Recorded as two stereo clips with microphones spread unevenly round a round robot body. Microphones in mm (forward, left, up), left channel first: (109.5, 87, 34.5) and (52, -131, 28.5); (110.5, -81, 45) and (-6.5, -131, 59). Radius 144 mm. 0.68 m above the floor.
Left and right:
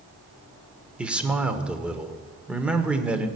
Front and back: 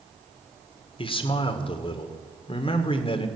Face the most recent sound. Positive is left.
turn(degrees=-20)